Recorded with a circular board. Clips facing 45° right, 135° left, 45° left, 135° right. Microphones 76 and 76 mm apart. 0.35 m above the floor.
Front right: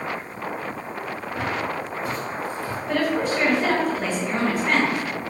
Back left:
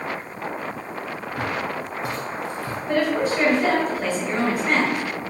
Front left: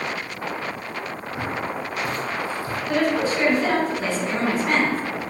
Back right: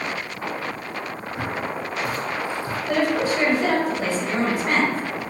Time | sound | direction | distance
1.4 | footsteps | 115° left | 1.0 m
2.9 | a woman speaking | 165° right | 1.1 m